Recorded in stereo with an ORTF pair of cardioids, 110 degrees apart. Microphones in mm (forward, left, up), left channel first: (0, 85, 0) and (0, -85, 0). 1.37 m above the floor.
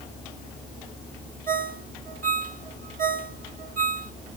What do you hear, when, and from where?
1.5 s a ringtone: 55° right, 2.5 m